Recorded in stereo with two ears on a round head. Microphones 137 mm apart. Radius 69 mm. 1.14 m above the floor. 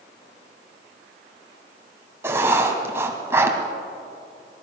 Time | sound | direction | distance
2.2 | writing | 15° right (ahead or behind) | 2.5 m